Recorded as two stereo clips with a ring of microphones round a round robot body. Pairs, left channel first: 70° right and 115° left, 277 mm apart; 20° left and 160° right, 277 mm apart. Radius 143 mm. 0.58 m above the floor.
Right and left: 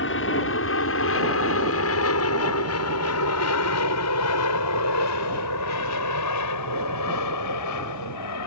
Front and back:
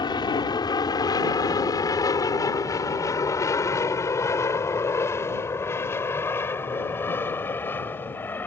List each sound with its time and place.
0.0 s an aircraft: 45° right; by 8.5 s 60° right